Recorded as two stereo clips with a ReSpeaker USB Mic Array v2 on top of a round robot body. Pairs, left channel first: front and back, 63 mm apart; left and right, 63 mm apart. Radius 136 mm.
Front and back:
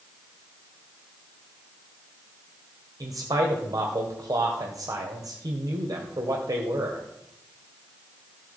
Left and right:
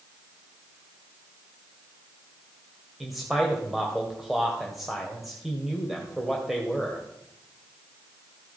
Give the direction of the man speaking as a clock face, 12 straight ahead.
6 o'clock.